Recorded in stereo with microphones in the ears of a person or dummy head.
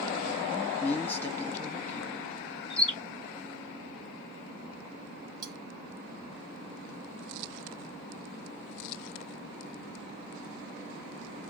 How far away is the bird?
About 2.5 m.